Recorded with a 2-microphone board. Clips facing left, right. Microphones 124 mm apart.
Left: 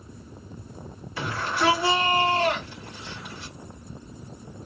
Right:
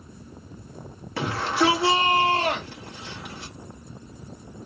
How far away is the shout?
About 2.5 m.